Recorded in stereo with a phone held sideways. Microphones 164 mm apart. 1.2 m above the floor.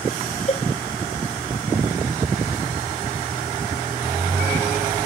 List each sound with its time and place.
0.5 s a cowbell: 40° left (ahead or behind)